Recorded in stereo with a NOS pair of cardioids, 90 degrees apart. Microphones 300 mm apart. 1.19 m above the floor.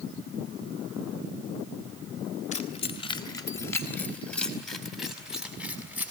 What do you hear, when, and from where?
2.5 s keys jangling: 25° left, 3 m; by 6.1 s 5° right, 6 m